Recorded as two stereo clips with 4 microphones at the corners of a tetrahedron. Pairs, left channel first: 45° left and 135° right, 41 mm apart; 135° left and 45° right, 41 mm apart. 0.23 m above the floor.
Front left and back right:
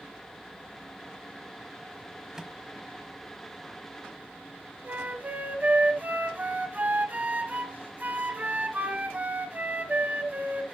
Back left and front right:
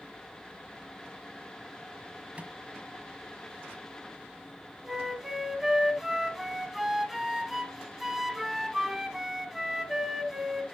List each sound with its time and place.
2.4 s a microwave: 65° right, 1.4 m
4.8 s a flute: 125° right, 1.3 m